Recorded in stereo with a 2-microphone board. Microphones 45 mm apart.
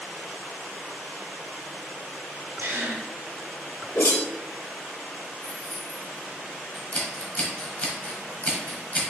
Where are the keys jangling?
65° right (ahead or behind), 1.7 m.